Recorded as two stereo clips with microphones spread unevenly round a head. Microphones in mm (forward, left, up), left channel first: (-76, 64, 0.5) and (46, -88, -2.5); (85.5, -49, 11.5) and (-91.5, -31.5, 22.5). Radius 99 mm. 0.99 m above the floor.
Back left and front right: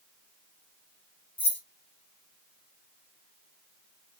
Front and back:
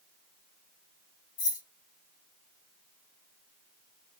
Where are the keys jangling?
45° left, 1.3 m.